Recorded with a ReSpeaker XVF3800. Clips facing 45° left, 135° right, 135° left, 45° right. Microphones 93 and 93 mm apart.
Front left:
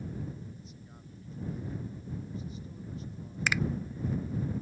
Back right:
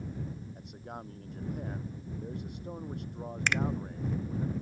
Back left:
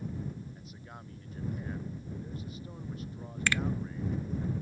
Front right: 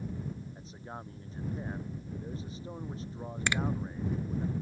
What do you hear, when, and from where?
0.6 s a man speaking: 105° right
3.5 s a finger snap: 35° right